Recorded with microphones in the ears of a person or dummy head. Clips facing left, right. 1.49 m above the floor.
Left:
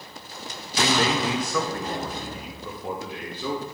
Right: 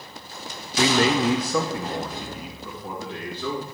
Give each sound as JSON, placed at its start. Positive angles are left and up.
{"t": 0.8, "sound": "a man speaking", "side_deg": -60, "distance_m": 0.6}